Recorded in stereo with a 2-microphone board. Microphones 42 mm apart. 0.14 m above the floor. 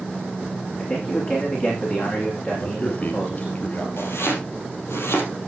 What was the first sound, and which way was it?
A man speaking, 40° left (ahead or behind).